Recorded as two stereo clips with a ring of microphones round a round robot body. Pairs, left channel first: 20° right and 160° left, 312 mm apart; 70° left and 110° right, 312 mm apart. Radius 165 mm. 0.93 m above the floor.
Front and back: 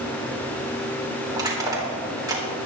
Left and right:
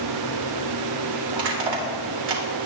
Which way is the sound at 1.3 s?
125° right.